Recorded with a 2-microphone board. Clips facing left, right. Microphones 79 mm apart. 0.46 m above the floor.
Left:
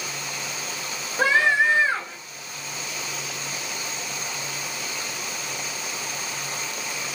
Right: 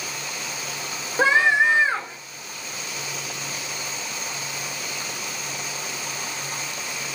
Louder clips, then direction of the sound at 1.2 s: Right 2 dB; 25° right (ahead or behind).